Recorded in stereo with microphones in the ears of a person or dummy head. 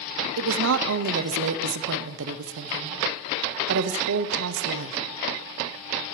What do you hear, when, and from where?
0.4 s a woman speaking: 70° right (ahead or behind), 0.7 m